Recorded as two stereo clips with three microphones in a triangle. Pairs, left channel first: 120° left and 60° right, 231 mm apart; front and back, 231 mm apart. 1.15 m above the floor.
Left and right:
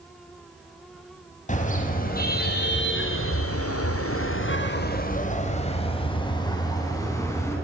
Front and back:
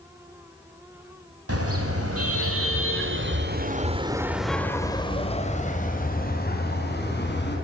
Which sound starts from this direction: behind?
A car horn, at 1.5 s.